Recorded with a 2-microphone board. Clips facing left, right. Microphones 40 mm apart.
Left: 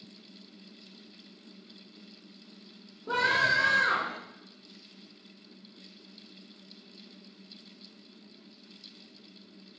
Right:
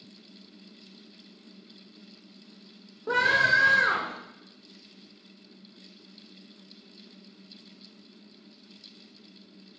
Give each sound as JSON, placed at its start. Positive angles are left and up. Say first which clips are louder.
{"t": 3.1, "sound": "a scream", "louder": "right 3 dB", "side_deg": -65, "distance_m": 2.5}